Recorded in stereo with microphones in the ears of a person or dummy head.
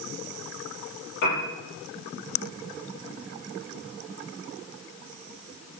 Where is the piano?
65° left (ahead or behind), 7.5 m.